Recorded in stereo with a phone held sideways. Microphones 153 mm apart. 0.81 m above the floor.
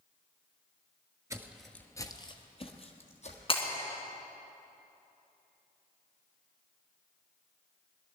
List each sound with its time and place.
1.3 s footsteps: 20° right (ahead or behind), 0.8 m; by 3.4 s 50° left (ahead or behind), 2 m
3.5 s breaking glass: 40° left (ahead or behind), 2.5 m